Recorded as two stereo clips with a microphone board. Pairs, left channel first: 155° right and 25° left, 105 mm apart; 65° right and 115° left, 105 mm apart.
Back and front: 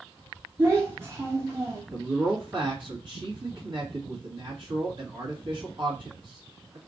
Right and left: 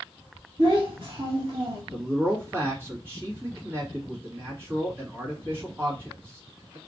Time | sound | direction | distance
0.6 | a child speaking | 80° left | 0.9 m
1.9 | a man speaking | 50° left | 2 m